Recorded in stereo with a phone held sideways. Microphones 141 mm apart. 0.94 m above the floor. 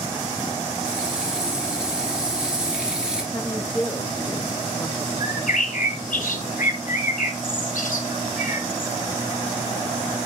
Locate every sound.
0.8 s frying: 5° right (ahead or behind), 3 m
3.3 s a woman speaking: 15° left (ahead or behind), 1.2 m
5.2 s a bird: 75° left (ahead or behind), 1.8 m